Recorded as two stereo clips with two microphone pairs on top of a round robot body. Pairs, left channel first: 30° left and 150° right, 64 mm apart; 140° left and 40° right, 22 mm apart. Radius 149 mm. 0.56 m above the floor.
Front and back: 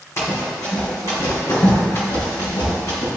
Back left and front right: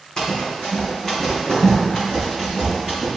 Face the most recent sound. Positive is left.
turn(degrees=45)